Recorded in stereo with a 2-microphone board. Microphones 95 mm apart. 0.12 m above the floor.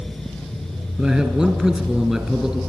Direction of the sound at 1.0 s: Centre (ahead or behind).